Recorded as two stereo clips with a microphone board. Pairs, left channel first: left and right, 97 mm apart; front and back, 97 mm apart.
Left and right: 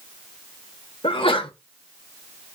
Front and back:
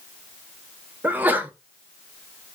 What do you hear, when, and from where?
1.0 s a sneeze: 105° left, 0.9 m